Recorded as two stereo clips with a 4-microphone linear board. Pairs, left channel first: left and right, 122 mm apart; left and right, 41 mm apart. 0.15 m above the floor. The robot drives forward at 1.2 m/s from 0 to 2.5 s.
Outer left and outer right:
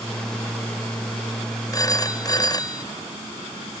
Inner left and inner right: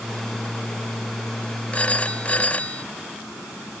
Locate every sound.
1.7 s a phone ringing: 30° left (ahead or behind)